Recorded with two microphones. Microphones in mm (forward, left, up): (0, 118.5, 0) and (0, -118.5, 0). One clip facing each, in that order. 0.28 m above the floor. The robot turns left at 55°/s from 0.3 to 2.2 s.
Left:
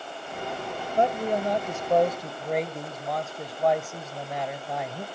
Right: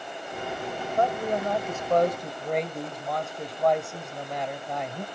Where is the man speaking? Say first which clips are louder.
Left 2 dB; 25° left (ahead or behind), 0.9 m; by 5.0 s centre (ahead or behind), 0.9 m.